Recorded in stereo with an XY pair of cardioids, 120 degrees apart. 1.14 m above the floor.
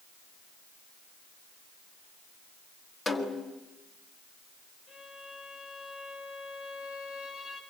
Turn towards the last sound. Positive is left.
turn(degrees=55)